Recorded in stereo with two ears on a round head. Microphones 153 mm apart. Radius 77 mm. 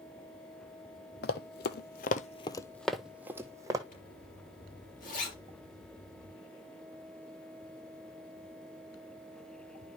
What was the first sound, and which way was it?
Running footsteps, 65° left (ahead or behind).